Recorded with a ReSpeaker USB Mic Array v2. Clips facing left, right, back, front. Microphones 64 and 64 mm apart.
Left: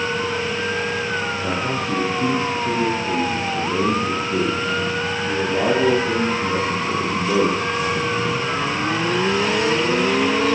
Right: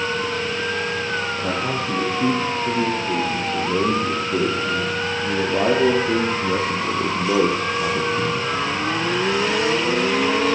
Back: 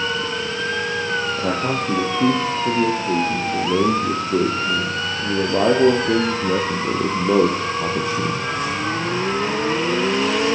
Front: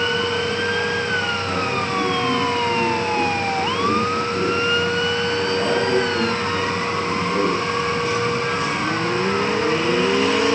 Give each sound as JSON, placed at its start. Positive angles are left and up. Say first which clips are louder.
{"t": 1.4, "sound": "a man speaking", "louder": "even, back 1 dB", "azimuth_deg": -175, "distance_m": 9.5}